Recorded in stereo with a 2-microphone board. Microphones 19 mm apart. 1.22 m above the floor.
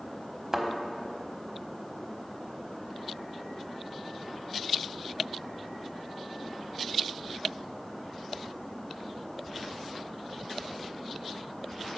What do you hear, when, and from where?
0.5 s a thud: 25° right (ahead or behind), 0.9 m